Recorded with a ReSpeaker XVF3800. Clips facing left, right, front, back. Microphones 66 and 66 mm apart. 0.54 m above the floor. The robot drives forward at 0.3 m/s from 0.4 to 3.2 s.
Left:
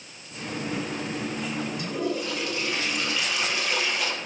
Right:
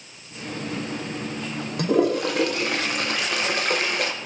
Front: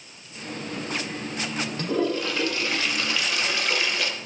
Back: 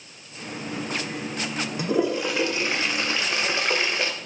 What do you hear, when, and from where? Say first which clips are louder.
1.8 s a toilet flushing: right 12 dB, back 2 dB; 105° right, 1.3 m; by 4.1 s 120° right, 1.4 m